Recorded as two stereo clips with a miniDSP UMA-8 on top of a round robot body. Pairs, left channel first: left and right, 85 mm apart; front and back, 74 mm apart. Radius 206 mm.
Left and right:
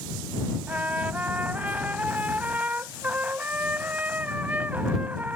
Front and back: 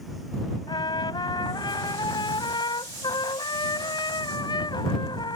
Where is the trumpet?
15° right.